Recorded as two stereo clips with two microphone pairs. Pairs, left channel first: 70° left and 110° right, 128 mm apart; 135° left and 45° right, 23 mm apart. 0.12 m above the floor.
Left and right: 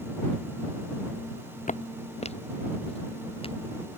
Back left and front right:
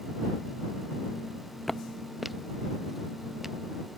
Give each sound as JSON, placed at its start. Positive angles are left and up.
{"t": 1.7, "sound": "footsteps", "azimuth_deg": 55}